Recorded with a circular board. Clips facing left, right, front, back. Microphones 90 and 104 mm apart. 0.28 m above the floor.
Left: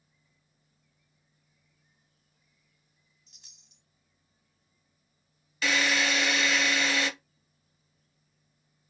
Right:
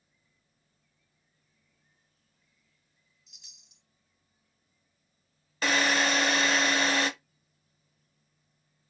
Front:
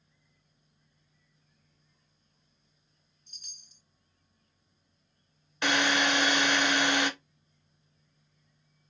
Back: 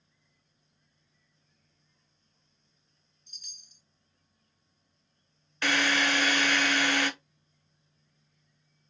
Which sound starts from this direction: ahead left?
A chime, at 3.3 s.